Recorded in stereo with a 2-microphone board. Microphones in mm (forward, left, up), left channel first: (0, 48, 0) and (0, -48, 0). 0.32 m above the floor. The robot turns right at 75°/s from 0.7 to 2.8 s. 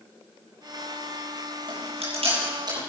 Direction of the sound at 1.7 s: 60° right (ahead or behind).